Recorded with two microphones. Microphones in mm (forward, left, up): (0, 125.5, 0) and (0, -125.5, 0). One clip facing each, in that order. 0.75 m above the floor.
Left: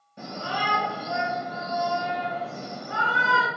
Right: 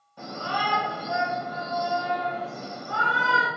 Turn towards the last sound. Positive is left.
turn(degrees=20)  # may be behind; listen again after turning